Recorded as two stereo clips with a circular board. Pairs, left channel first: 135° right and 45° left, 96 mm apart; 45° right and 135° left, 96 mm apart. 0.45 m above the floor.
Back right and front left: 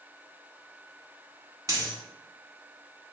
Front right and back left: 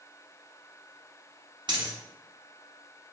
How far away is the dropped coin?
About 0.8 m.